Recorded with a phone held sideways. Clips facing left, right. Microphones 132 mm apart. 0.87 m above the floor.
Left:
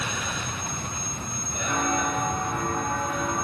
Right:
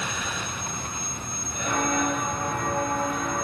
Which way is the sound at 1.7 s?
60° right (ahead or behind).